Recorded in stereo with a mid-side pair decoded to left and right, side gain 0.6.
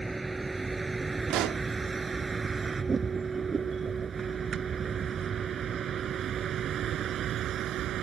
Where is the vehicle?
15° right; by 8.0 s 55° right.